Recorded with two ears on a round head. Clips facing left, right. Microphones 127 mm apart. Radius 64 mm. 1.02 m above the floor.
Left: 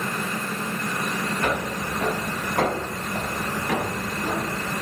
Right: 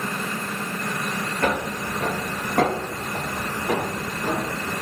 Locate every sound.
1.4 s footsteps: 45° right (ahead or behind), 1.3 m; by 4.7 s 35° right (ahead or behind), 3 m